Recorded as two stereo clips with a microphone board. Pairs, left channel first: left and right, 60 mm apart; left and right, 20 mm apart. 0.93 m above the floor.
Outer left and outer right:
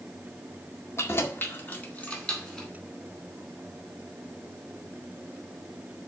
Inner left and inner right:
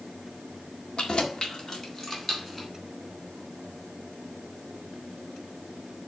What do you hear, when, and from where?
1.0 s keys jangling: 50° left (ahead or behind), 1.8 m; by 2.7 s 10° left (ahead or behind), 2.5 m